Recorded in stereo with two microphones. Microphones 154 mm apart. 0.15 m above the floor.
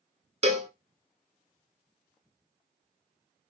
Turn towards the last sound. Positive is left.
turn(degrees=-45)  # may be behind; listen again after turning